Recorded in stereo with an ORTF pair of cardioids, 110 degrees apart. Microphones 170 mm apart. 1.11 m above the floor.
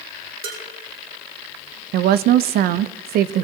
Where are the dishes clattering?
65° right, 3 m.